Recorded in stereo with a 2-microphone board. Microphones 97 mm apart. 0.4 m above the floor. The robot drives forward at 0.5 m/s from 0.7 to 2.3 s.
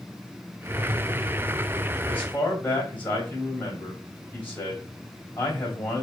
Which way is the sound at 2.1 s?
20° left (ahead or behind).